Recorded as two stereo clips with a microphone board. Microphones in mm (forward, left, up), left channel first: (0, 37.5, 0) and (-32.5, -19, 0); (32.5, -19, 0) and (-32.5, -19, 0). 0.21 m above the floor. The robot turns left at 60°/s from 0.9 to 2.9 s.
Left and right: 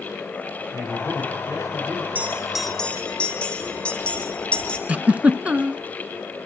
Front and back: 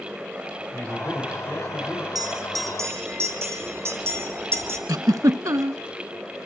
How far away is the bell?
About 4 m.